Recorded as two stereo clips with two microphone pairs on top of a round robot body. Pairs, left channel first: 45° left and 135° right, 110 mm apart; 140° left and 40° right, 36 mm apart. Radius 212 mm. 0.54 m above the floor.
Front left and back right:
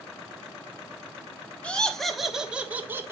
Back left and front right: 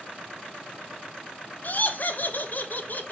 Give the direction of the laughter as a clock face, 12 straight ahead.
8 o'clock.